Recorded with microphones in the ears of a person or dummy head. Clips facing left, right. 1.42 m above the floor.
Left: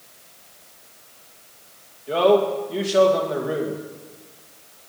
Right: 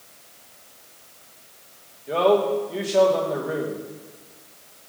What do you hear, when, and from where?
2.1 s a man speaking: centre (ahead or behind), 1.9 m